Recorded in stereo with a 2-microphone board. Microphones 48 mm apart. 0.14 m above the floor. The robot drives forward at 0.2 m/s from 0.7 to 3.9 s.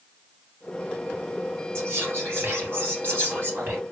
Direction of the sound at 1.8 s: 50° right (ahead or behind).